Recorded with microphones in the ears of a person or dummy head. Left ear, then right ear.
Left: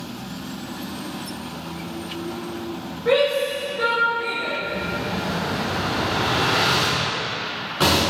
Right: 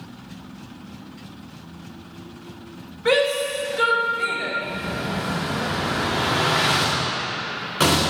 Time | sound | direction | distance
3.0 | a shout | 80° right | 2.5 m
4.6 | an explosion | 20° right (ahead or behind) | 1.6 m